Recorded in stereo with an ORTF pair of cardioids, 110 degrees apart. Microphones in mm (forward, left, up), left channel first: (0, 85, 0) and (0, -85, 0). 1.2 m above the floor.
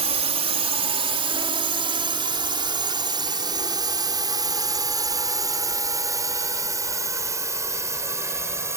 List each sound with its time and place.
0.0 s a drone: 40° right; by 8.8 s 15° right